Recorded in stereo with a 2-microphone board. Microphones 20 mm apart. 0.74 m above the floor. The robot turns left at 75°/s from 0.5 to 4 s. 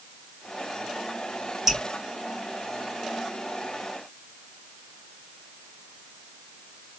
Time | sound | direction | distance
1.7 | dripping | 20° right (ahead or behind) | 3.5 m